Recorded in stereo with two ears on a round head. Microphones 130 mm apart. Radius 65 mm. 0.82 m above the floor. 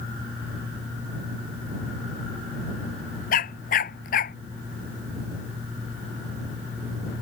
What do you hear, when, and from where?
3.3 s a dog barking: 60° left (ahead or behind)